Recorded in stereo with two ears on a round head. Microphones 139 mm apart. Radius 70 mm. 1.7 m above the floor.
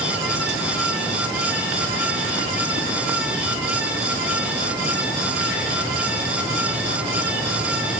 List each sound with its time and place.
Only background noise.